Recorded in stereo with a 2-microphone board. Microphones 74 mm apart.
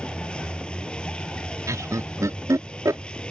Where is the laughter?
45° right (ahead or behind).